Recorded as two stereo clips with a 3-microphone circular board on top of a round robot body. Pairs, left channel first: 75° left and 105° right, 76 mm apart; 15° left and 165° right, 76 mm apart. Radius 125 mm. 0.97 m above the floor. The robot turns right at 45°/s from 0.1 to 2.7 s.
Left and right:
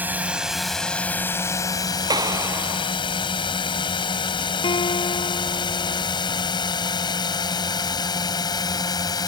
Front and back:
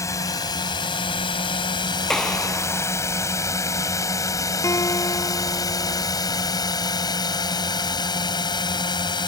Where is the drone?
35° right; by 9.3 s 40° left.